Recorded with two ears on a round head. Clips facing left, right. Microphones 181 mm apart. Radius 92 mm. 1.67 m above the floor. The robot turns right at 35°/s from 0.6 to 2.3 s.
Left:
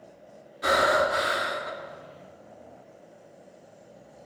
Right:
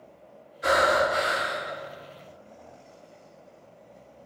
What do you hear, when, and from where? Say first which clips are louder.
0.6 s breathing: right 1 dB; 70° left, 3 m; by 1.7 s 105° left, 3 m